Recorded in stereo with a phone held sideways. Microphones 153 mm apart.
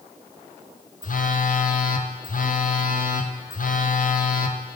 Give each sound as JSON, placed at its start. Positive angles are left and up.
{"t": 1.0, "sound": "a phone buzzing", "side_deg": 60, "distance_m": 0.5}